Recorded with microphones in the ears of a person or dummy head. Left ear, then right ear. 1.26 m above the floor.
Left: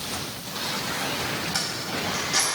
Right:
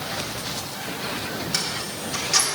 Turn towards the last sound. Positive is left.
turn(degrees=-70)  # may be behind; listen again after turning